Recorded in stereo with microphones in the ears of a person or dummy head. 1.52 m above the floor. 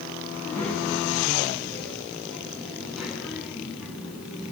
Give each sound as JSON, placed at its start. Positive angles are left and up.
{"t": 0.3, "sound": "a child speaking", "side_deg": 5, "distance_m": 8.0}